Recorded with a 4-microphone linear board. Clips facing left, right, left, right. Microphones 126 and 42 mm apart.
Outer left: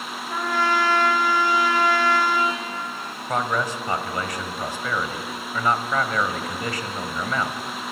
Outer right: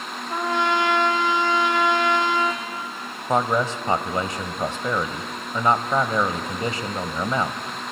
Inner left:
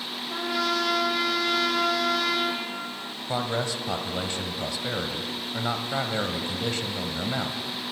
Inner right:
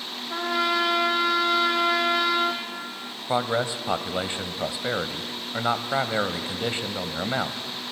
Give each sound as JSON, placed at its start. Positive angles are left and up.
{"t": 0.3, "sound": "a trumpet", "side_deg": -20, "distance_m": 1.9}
{"t": 3.3, "sound": "a man speaking", "side_deg": -25, "distance_m": 1.0}